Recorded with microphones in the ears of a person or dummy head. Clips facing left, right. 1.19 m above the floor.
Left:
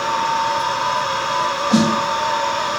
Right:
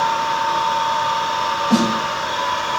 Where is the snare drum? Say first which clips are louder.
Left 1 dB; 30° right (ahead or behind), 1.0 m.